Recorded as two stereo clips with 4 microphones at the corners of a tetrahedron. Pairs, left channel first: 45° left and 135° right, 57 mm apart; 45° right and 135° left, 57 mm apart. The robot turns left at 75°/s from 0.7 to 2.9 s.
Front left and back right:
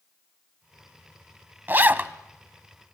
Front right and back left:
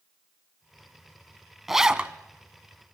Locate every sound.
1.7 s a zipper: 140° right, 0.8 m; by 2.1 s 175° right, 0.8 m